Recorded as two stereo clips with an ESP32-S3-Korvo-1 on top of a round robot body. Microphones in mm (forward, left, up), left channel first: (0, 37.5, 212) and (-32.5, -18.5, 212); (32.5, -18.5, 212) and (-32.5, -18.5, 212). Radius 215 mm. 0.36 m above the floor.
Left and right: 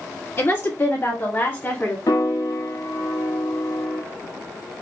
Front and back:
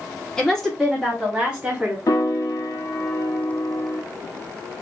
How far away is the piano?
About 0.6 m.